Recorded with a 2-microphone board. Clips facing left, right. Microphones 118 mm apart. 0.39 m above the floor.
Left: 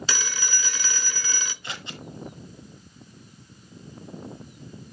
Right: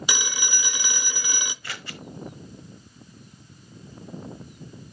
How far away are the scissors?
About 1.1 m.